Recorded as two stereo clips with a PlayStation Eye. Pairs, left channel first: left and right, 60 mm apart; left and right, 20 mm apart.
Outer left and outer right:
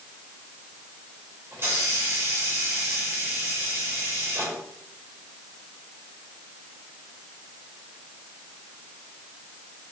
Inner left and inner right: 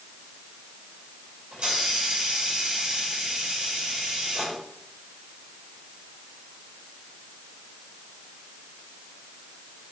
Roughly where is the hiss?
Right.